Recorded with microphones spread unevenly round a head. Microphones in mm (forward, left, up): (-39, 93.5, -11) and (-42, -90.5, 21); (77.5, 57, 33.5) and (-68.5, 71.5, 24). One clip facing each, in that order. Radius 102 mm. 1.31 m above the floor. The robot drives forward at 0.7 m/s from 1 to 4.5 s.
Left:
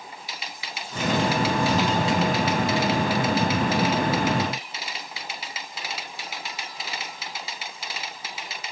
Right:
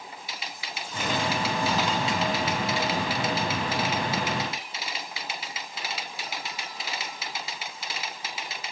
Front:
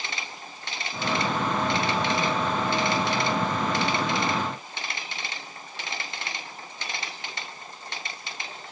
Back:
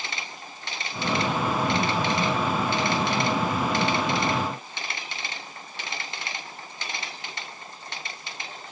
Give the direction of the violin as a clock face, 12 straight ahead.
I don't hear a violin.